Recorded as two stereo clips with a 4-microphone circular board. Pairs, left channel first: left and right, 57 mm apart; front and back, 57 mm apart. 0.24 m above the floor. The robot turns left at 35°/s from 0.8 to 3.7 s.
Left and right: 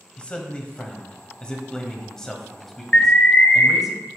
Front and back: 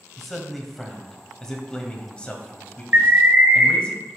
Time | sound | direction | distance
0.2 | a man speaking | 80° left | 1.1 m
2.9 | an alarm | 150° left | 0.9 m